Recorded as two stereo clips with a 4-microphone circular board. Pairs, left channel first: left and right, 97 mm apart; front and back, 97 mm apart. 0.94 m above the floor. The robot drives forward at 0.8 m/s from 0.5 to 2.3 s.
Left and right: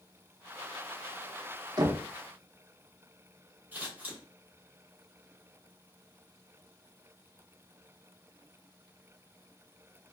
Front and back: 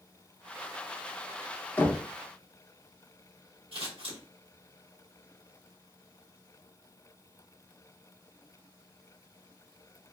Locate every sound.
1.8 s knocking: 65° right, 0.9 m; by 2.0 s 80° right, 0.8 m
3.7 s scissors: 165° right, 1.7 m